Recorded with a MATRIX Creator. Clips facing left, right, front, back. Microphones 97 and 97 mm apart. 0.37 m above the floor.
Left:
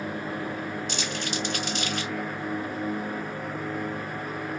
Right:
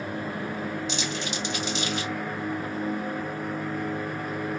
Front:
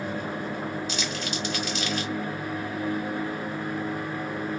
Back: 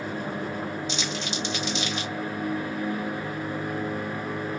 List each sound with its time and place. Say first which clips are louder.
0.9 s crumpling: even, even; 115° left, 1.5 m